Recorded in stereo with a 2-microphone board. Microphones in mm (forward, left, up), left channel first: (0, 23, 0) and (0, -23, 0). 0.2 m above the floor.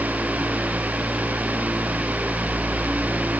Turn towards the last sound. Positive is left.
No sound to turn to.